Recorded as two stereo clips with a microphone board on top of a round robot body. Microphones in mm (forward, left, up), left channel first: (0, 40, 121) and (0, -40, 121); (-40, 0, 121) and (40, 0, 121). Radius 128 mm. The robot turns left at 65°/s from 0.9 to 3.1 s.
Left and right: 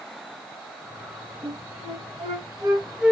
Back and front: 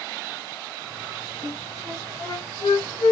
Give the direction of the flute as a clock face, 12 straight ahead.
2 o'clock.